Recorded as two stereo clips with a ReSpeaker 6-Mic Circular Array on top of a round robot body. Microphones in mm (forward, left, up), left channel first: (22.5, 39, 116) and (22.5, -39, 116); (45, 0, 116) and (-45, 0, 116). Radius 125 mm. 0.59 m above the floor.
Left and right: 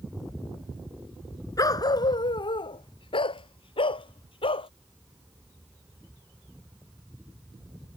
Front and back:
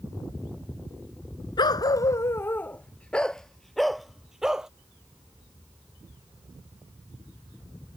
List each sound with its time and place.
1.6 s a dog barking: 45° left; by 4.7 s 95° left